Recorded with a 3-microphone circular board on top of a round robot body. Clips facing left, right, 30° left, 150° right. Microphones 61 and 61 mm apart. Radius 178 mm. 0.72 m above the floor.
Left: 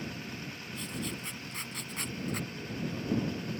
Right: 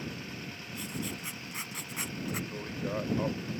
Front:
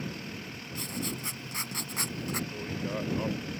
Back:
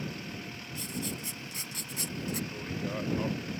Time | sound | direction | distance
0.8 | writing | 10° right | ?
2.5 | a man speaking | 60° right | ?